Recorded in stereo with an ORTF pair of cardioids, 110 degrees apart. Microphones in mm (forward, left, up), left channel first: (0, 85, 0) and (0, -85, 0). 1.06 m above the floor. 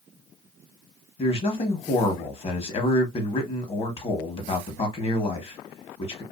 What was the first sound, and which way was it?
A man speaking, 35° left.